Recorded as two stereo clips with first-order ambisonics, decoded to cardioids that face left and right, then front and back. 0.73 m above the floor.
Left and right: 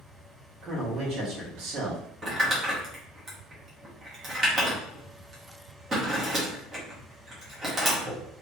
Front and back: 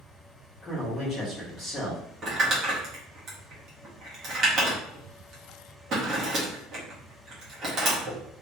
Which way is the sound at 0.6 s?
60° right.